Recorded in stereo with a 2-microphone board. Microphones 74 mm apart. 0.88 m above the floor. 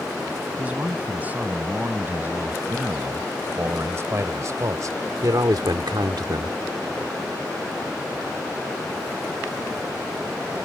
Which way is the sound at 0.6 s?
20° right (ahead or behind).